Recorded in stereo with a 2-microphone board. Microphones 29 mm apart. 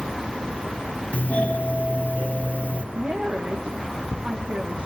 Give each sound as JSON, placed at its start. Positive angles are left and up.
{"t": 1.1, "sound": "a doorbell", "side_deg": 55, "distance_m": 3.5}
{"t": 2.9, "sound": "a woman speaking", "side_deg": -50, "distance_m": 7.5}